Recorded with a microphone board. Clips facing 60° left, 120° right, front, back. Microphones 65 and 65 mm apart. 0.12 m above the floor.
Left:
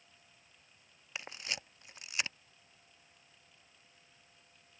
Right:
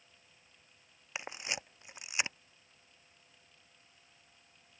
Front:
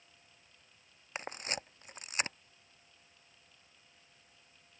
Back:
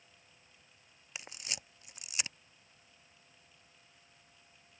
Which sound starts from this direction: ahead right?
A camera shutter, at 1.1 s.